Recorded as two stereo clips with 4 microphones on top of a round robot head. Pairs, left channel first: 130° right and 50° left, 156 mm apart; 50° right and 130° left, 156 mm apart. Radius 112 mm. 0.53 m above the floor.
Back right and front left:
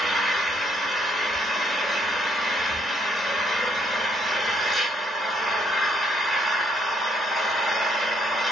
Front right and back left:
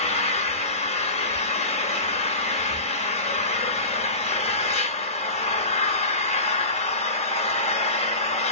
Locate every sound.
0.0 s an engine running: 40° right, 0.8 m